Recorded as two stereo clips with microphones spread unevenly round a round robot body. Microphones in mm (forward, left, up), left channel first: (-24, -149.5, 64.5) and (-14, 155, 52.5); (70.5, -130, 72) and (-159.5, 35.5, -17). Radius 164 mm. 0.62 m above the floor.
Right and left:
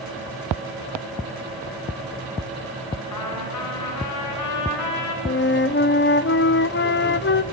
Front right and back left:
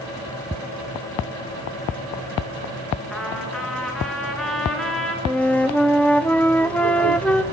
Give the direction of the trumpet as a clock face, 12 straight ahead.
4 o'clock.